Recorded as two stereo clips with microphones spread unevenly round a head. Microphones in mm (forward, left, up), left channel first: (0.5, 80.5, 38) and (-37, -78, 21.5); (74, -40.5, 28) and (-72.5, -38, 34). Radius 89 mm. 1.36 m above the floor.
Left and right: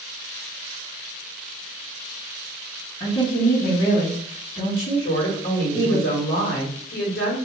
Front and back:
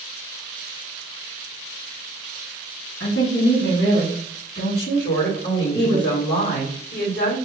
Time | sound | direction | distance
3.0 | a woman speaking | 25° left | 1.7 m
5.0 | a woman speaking | 40° left | 1.7 m